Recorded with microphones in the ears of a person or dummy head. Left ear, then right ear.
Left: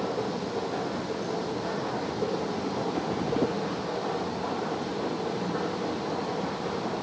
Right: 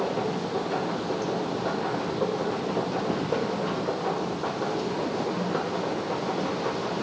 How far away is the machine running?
About 1.1 m.